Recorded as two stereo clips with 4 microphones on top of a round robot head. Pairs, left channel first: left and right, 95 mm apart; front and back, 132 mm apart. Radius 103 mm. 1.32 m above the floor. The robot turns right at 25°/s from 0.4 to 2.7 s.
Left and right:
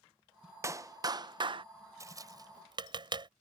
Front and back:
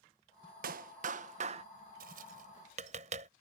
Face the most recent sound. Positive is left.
turn(degrees=-130)